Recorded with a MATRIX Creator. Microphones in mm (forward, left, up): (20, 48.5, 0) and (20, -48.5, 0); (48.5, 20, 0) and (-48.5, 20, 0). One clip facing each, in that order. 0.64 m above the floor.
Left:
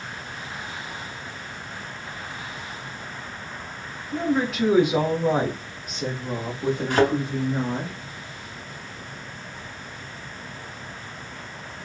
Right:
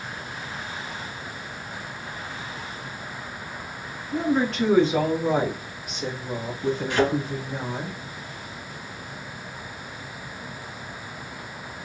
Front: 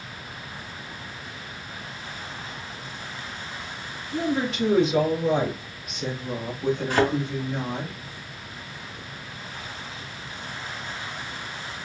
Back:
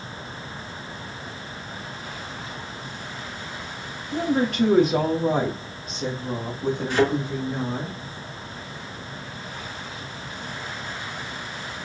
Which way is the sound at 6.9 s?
45° left.